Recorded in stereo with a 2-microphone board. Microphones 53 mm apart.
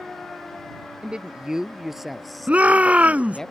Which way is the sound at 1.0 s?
20° right (ahead or behind).